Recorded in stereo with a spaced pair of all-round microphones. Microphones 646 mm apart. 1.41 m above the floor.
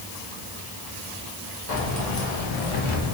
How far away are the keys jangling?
About 1.4 m.